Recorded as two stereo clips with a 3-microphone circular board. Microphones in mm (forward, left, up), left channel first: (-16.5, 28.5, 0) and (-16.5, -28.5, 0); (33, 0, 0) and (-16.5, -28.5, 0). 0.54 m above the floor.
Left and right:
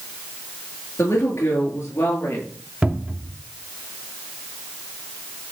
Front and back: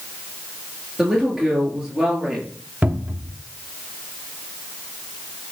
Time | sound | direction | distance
1.0 | a woman speaking | 135° left | 7.5 m
2.8 | a cupboard door | 135° right | 1.0 m